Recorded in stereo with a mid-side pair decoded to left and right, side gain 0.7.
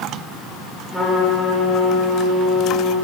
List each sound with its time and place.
0.9 s a trumpet: 5° left, 4.5 m